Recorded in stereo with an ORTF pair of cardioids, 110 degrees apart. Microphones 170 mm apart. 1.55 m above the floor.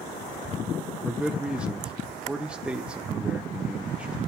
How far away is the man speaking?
About 1.5 m.